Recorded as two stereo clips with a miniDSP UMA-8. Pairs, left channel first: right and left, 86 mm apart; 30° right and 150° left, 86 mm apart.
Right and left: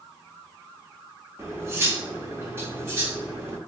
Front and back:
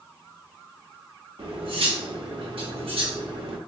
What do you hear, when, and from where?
1.4 s cutlery clinking: 150° left, 1.0 m